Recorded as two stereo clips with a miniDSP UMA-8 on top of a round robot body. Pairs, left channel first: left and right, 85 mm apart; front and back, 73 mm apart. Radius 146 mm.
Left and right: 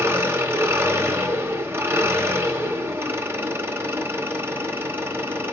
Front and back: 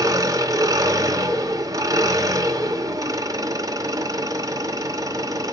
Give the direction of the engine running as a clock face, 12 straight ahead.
5 o'clock.